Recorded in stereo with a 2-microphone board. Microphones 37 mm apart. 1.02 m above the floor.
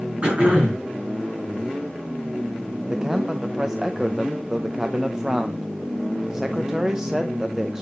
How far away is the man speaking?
About 0.7 m.